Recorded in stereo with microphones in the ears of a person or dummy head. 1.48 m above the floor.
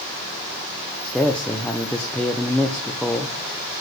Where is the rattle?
No rattle in this recording.